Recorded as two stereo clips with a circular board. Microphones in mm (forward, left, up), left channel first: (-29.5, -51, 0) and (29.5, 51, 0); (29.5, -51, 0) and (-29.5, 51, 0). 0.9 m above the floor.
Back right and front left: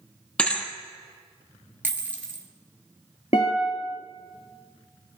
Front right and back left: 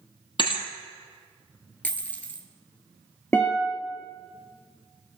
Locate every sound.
0.4 s a thud: 45° right, 1.2 m
1.8 s a dropped coin: straight ahead, 0.9 m
3.3 s a guitar: 125° right, 2 m